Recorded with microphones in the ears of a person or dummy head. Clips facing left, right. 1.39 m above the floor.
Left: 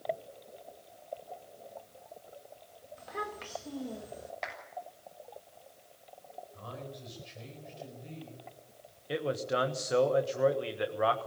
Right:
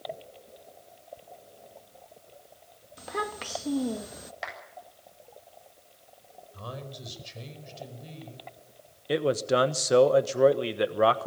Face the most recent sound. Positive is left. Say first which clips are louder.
# right 7 dB
turn(degrees=-50)  # may be behind; listen again after turning